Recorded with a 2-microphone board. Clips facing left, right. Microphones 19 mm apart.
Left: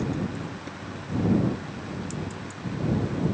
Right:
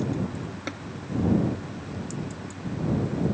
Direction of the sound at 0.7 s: 60° right (ahead or behind).